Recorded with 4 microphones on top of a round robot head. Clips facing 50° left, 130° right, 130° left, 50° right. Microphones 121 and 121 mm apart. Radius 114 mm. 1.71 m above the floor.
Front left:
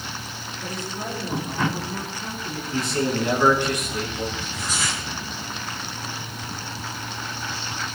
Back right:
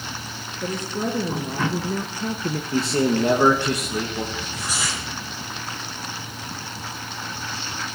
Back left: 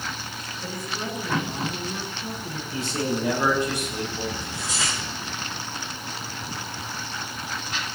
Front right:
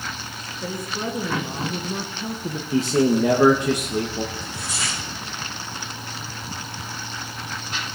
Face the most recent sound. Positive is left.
turn(degrees=145)